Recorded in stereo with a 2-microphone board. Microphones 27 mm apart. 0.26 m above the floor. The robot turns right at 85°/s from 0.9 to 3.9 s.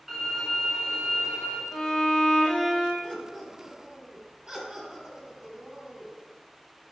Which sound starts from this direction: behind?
A violin, at 0.1 s.